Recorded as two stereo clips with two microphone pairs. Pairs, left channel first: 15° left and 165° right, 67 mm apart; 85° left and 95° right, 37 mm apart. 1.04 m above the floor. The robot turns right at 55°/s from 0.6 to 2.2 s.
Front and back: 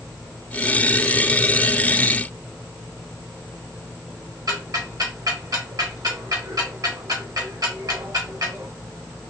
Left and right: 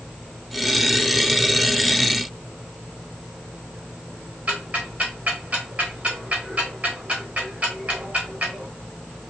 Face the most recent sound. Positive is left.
turn(degrees=-150)